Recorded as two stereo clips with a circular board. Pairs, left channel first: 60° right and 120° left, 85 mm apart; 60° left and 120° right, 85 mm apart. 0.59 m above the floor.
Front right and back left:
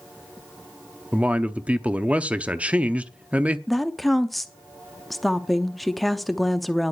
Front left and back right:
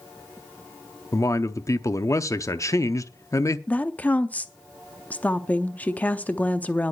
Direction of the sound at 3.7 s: 30° left.